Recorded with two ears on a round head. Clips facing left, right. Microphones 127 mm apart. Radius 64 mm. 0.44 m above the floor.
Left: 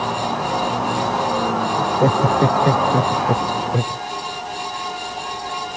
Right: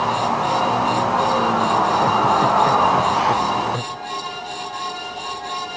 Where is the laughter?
40° left (ahead or behind); by 4.0 s 25° left (ahead or behind).